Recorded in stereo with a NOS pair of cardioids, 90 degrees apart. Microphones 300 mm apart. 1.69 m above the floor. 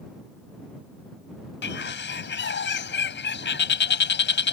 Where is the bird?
40° left.